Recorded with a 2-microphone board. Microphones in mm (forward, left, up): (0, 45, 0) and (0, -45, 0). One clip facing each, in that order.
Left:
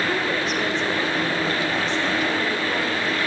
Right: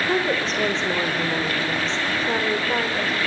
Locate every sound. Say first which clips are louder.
0.1 s a woman speaking: right 1 dB; 30° right (ahead or behind), 2.5 m